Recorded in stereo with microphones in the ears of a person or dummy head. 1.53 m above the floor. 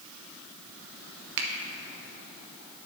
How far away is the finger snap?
About 0.6 m.